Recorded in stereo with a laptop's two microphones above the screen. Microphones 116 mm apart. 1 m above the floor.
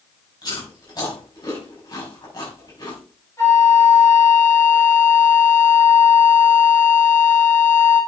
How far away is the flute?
About 4.5 m.